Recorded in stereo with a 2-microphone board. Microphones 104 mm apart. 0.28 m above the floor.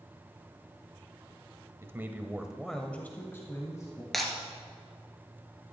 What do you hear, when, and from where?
1.8 s a man speaking: 25° right (ahead or behind), 1.1 m; by 4.0 s 30° left (ahead or behind), 1.6 m
4.1 s breaking glass: centre (ahead or behind), 2.0 m